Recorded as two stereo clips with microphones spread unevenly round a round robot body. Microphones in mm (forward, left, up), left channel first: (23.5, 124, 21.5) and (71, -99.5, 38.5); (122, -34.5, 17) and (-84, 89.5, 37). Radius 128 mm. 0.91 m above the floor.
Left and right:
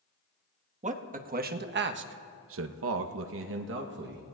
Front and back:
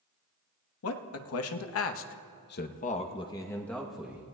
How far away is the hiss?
No hiss in this recording.